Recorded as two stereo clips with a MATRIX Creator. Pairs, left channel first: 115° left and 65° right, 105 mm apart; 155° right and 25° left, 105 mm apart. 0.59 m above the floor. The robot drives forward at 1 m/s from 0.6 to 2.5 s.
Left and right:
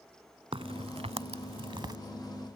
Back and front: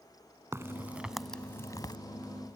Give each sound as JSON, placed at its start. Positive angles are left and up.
{"t": 0.5, "sound": "a crack", "azimuth_deg": -40}